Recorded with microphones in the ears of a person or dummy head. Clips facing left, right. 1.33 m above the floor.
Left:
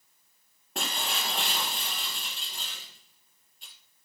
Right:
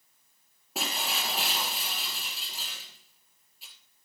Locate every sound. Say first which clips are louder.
0.8 s breaking glass: even; 5° right (ahead or behind), 2.5 m